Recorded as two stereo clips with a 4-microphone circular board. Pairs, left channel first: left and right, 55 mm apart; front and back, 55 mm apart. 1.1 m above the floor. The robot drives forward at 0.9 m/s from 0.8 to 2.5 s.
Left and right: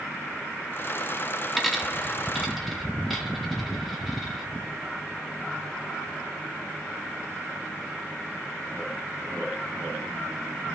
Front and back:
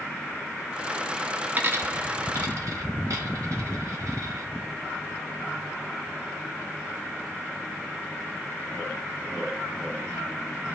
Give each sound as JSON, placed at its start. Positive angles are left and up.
{"t": 1.6, "sound": "a dropped coin", "azimuth_deg": -175, "distance_m": 0.6}